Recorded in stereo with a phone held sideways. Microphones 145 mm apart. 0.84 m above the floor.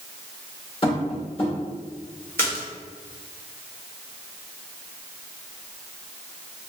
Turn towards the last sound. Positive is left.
turn(degrees=15)  # may be behind; listen again after turning